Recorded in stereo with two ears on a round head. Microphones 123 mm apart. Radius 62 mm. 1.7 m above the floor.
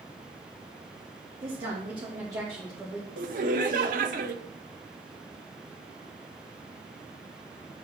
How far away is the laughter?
About 0.9 m.